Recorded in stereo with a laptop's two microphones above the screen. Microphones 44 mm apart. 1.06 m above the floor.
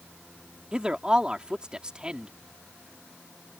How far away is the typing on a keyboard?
No typing on a keyboard in this recording.